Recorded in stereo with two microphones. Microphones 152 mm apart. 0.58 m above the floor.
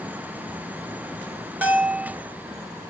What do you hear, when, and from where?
1.6 s a bell: 10° right (ahead or behind), 1.5 m